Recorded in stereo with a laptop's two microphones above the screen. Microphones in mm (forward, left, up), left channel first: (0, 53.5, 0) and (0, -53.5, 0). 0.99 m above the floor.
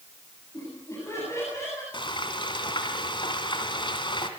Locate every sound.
0.5 s laughter: 25° left (ahead or behind), 8.5 m
1.9 s frying: 50° left (ahead or behind), 2.5 m